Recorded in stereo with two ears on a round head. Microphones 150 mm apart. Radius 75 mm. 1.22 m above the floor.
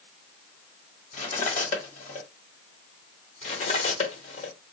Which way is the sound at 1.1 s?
45° left (ahead or behind).